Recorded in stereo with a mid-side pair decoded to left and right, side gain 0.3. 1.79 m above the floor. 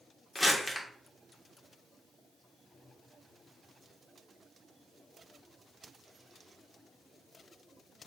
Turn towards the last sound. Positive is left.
turn(degrees=25)